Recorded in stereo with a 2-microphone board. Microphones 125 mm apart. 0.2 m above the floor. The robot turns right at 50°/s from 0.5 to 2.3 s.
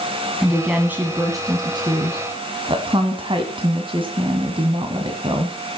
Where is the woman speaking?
Straight behind, 1.7 m; by 5.6 s 90° right, 1.7 m.